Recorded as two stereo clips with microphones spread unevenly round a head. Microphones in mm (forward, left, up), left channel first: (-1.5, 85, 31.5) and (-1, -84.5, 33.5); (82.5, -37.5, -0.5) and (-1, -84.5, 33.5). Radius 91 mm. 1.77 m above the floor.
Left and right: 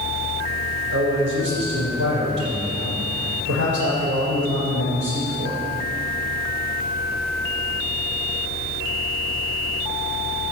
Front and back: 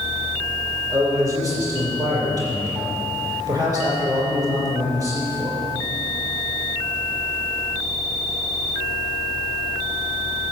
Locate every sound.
0.9 s a man speaking: 100° right, 5.5 m